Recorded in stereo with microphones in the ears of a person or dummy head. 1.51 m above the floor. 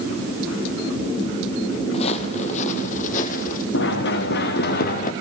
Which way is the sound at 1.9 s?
35° left (ahead or behind).